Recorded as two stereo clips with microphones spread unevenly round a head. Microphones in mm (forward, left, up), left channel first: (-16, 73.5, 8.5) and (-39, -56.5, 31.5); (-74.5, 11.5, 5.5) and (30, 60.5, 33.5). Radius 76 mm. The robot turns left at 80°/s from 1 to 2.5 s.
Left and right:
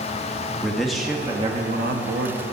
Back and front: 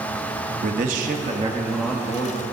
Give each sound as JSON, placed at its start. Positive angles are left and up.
{"t": 0.6, "sound": "a man speaking", "azimuth_deg": -5, "distance_m": 1.6}